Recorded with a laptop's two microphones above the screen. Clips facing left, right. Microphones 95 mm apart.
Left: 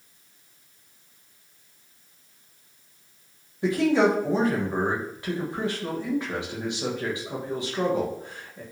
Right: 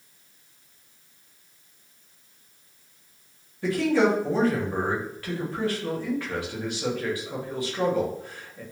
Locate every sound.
3.6 s a man speaking: 20° left (ahead or behind), 0.8 m